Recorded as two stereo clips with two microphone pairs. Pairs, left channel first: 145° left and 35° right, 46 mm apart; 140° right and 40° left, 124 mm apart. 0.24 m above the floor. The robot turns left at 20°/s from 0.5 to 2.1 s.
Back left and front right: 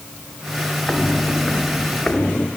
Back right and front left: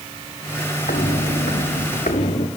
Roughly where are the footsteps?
Behind right.